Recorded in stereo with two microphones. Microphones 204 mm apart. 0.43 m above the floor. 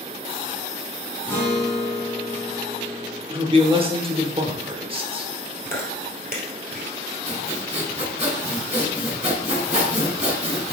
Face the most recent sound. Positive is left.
turn(degrees=-30)  # may be behind; listen again after turning